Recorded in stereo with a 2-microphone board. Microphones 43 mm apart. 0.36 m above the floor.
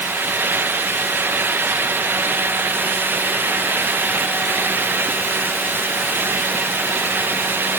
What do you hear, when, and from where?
Only background noise.